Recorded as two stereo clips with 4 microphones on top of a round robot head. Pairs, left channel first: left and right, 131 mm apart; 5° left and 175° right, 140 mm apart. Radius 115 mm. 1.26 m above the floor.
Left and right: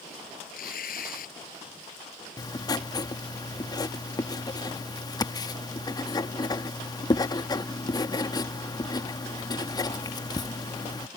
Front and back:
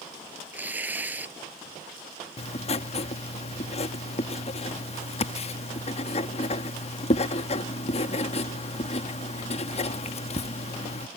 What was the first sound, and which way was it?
Tearing paper, 105° left.